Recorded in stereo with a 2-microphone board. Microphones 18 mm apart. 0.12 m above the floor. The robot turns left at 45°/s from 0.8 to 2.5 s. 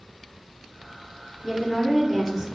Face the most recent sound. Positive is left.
turn(degrees=-35)